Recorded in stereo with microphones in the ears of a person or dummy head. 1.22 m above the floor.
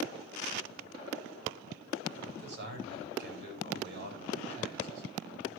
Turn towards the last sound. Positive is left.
turn(degrees=-65)  # may be behind; listen again after turning